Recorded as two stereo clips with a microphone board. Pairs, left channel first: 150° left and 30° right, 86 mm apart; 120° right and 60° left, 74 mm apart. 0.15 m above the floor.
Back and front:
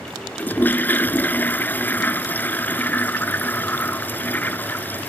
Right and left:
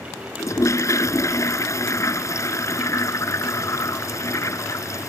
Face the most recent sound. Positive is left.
turn(degrees=-145)